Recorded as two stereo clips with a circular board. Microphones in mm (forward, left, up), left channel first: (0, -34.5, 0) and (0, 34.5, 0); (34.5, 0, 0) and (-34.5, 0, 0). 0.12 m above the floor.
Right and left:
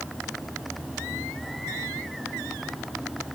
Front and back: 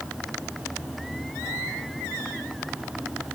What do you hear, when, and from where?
Only background noise.